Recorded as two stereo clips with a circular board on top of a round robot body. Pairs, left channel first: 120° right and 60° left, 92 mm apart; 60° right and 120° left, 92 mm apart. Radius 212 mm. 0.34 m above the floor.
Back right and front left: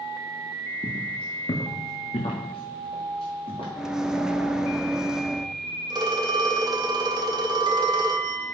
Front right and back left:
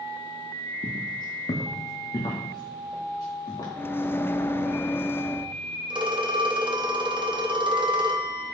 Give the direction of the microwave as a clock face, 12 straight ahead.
1 o'clock.